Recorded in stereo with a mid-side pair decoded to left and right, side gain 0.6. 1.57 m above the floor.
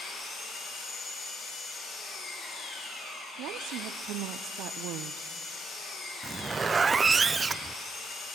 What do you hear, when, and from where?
0.0 s an engine running: 55° left, 8 m
3.4 s a woman speaking: 65° right, 0.7 m
6.2 s a zipper: 20° right, 0.5 m